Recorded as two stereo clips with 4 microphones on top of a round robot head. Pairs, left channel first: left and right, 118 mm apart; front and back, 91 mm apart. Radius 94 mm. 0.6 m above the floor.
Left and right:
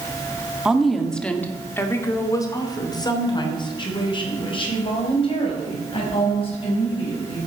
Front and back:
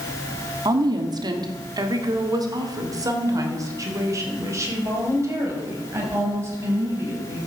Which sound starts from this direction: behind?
A woman speaking, at 0.7 s.